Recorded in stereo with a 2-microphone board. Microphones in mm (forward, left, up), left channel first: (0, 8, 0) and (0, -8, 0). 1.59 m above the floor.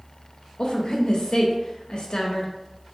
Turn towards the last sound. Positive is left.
turn(degrees=65)  # may be behind; listen again after turning